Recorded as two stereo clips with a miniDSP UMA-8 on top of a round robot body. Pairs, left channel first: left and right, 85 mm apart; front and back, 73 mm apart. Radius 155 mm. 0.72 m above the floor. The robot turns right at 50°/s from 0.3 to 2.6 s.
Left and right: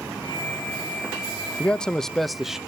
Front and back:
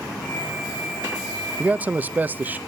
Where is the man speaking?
145° left, 0.6 m; by 2.6 s 165° right, 0.6 m.